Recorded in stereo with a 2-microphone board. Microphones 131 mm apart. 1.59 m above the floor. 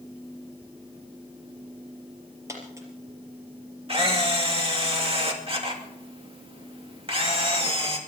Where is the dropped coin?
25° right (ahead or behind), 4.5 m.